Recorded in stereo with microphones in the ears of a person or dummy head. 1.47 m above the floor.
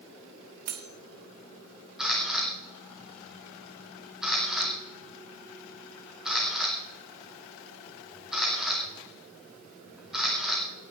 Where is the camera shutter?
Centre (ahead or behind), 3 m.